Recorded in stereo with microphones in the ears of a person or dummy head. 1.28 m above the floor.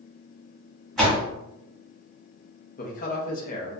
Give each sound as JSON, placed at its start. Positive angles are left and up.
{"t": 1.0, "sound": "a door slam", "side_deg": 0, "distance_m": 1.3}
{"t": 2.8, "sound": "a man speaking", "side_deg": 40, "distance_m": 0.6}